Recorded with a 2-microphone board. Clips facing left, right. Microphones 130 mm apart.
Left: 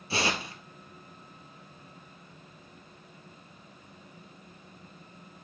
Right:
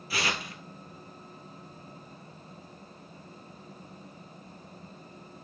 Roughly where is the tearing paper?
Left.